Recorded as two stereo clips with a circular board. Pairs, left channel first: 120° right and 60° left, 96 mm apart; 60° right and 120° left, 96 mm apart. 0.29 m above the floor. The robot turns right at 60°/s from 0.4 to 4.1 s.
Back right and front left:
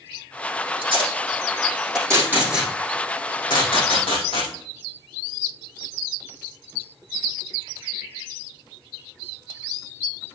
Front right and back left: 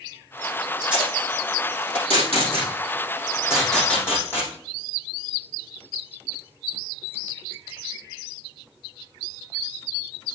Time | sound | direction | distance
0.8 | tape being pulled | 40° left | 5.5 m